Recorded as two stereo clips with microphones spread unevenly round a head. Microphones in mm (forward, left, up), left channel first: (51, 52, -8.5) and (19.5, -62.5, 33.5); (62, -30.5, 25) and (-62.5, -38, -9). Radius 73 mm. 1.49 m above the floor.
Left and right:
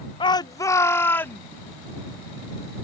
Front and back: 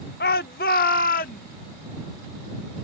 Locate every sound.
0.2 s a shout: 25° left; by 1.4 s straight ahead